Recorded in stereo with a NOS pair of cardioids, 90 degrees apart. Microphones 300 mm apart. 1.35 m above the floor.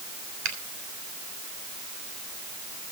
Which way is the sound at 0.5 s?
70° right.